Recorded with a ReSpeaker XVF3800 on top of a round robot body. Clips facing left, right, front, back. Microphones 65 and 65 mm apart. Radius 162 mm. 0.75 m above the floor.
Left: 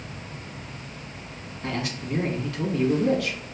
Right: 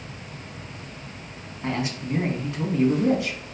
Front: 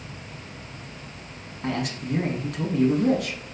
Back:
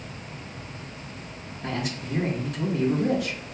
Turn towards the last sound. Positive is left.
turn(degrees=-30)